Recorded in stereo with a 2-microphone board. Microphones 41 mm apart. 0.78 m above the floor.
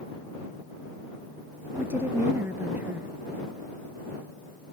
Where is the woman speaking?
55° right (ahead or behind).